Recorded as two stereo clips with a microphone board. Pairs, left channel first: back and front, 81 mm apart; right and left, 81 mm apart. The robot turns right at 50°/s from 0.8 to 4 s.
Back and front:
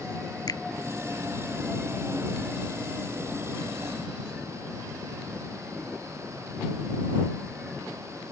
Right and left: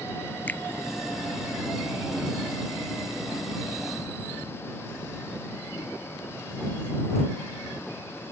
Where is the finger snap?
155° right.